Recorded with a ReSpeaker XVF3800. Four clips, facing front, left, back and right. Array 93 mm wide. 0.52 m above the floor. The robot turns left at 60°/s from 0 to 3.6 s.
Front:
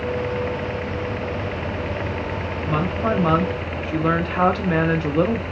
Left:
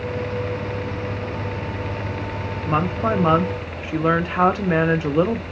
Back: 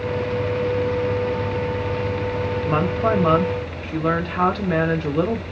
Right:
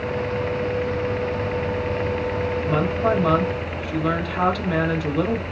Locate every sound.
2.7 s a woman speaking: 135° left, 0.7 m; by 5.4 s 80° left, 0.7 m